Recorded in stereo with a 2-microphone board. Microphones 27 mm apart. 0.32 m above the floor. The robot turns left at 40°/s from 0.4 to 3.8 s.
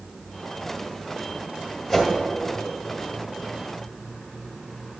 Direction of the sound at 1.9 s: 5° right (ahead or behind).